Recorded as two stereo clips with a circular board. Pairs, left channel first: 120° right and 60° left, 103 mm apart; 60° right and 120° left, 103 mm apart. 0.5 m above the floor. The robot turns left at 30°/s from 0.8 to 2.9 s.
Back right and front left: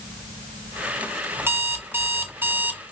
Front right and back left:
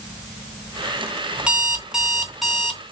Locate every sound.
1.4 s an alarm clock: 60° left, 0.5 m; by 2.8 s 20° left, 0.5 m